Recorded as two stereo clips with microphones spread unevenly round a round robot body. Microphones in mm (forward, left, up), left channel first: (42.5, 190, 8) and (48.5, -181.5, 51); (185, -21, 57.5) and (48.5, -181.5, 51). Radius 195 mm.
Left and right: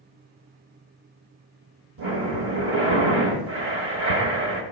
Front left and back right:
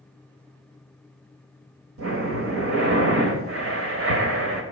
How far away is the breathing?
About 1.0 m.